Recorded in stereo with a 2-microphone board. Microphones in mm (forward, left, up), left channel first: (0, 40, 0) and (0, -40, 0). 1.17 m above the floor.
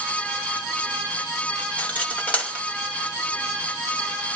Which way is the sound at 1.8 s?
20° left (ahead or behind).